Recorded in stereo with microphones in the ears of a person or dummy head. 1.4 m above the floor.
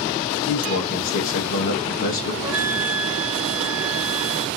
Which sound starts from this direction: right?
A flute, at 2.4 s.